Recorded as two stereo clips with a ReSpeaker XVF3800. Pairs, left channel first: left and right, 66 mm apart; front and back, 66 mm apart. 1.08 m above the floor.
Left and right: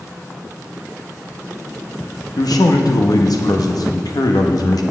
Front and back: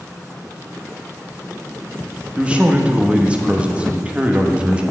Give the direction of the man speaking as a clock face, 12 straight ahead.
8 o'clock.